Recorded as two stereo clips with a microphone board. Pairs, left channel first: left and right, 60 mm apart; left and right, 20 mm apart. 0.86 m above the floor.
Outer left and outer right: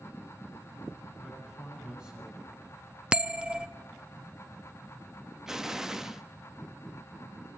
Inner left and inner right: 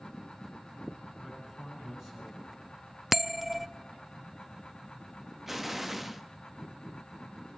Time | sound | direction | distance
1.2 | a man speaking | 15° right (ahead or behind) | 9.5 m
3.1 | a bell | 15° right (ahead or behind) | 0.5 m
5.5 | an explosion | 10° right (ahead or behind) | 0.8 m